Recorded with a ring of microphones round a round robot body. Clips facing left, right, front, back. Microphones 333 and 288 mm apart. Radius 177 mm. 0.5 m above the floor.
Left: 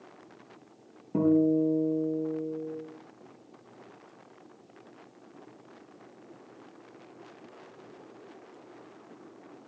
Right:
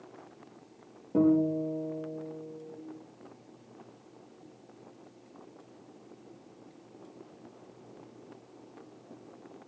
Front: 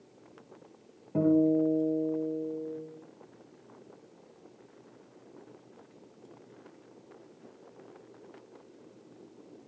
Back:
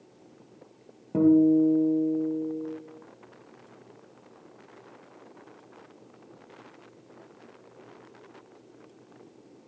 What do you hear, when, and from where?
1.1 s a guitar: 155° left, 6 m